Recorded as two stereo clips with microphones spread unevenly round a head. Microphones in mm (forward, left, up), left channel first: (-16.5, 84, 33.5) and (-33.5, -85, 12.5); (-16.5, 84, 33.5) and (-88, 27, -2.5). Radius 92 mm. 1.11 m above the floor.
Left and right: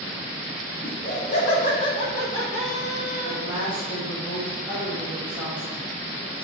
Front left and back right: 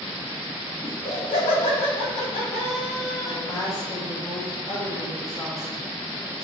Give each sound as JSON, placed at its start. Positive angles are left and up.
{"t": 0.8, "sound": "laughter", "azimuth_deg": 40, "distance_m": 3.0}
{"t": 3.2, "sound": "a woman speaking", "azimuth_deg": -15, "distance_m": 1.3}